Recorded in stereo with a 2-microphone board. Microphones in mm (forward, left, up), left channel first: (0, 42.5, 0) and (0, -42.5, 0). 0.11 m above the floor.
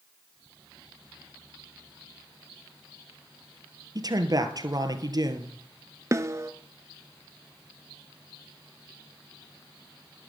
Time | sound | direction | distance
4.0 | a man speaking | 45° right (ahead or behind) | 1.9 m
6.1 | a snare drum | 35° right (ahead or behind) | 0.7 m